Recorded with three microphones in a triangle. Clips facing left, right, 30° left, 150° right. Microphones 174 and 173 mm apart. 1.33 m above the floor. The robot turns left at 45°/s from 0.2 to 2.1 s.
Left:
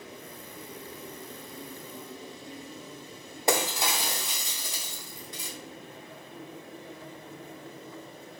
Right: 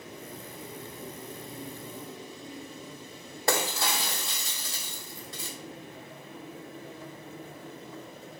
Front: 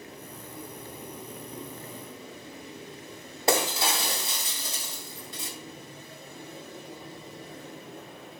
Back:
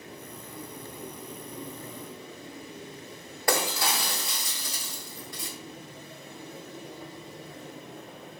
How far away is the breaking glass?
About 0.9 m.